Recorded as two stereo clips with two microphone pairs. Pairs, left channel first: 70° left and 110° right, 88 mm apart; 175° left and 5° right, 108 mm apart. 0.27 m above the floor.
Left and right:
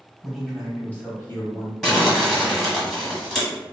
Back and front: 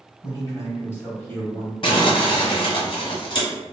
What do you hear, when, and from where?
0.2 s a man speaking: 165° left, 1.5 m; by 1.7 s 100° left, 1.6 m
1.8 s crumpling: 160° left, 1.2 m